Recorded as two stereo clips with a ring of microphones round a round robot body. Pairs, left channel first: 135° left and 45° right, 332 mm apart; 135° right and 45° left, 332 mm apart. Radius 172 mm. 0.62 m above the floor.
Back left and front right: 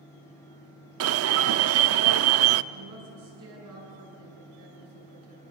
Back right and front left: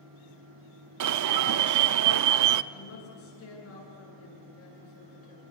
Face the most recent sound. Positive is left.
turn(degrees=-80)